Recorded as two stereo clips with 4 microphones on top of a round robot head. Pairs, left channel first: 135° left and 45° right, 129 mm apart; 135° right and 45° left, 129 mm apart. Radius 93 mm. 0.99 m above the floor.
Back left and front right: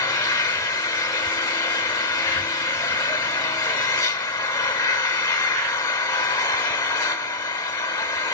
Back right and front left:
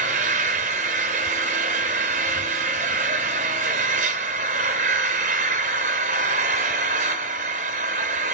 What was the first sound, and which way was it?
An engine running, 80° left.